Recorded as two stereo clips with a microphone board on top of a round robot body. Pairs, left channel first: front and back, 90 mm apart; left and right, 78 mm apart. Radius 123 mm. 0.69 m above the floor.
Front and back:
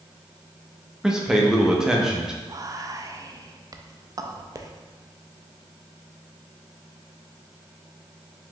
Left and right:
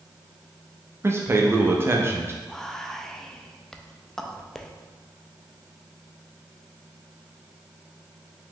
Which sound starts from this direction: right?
A man speaking, at 1.0 s.